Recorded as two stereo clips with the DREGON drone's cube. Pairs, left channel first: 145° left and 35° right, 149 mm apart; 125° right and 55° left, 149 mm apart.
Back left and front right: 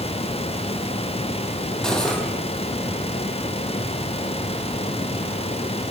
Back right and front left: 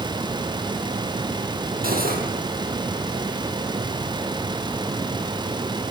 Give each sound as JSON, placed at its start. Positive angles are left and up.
{"t": 1.8, "sound": "cutlery clinking", "azimuth_deg": 60, "distance_m": 4.5}